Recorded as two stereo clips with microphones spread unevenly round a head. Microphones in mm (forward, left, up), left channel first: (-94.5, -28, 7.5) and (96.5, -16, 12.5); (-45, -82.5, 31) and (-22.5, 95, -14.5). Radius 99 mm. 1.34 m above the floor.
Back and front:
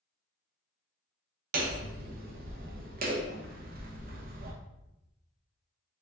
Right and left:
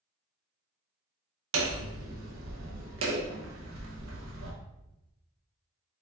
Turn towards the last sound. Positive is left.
turn(degrees=50)